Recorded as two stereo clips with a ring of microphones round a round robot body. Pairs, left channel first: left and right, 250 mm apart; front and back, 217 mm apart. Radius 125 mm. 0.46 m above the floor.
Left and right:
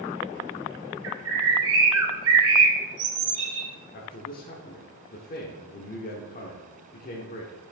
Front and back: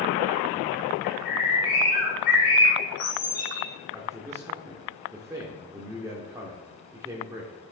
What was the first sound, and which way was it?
A bird, 55° right.